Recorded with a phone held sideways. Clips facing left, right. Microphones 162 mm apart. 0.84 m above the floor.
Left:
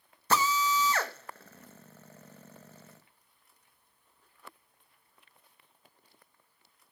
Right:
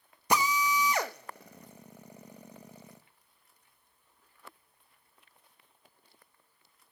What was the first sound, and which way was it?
A drill, 15° right (ahead or behind).